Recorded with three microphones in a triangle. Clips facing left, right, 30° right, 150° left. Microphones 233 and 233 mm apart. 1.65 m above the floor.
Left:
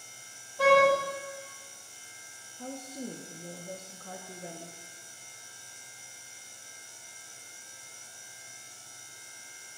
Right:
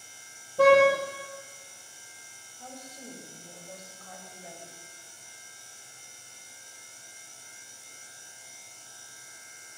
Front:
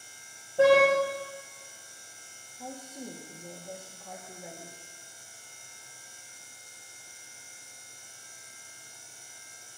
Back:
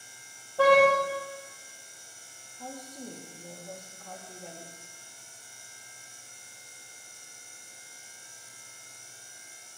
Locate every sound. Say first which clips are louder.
0.6 s a car horn: right 4 dB, front 1 dB; 95° right, 5.5 m
2.6 s a woman speaking: left 7 dB, front 1 dB; 55° left, 1.9 m